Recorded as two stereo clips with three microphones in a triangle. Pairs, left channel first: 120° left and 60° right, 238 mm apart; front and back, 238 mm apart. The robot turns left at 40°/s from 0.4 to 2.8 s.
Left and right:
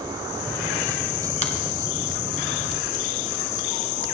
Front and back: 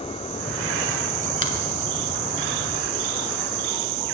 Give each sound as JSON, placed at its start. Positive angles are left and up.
{"t": 1.4, "sound": "a finger snap", "azimuth_deg": 155, "distance_m": 1.1}